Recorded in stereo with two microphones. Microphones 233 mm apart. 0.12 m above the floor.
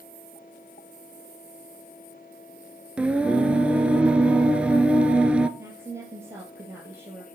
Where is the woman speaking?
10° right (ahead or behind), 3 m.